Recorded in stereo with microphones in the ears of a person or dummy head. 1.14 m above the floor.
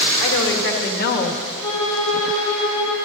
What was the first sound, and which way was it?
A woman speaking, 65° left (ahead or behind).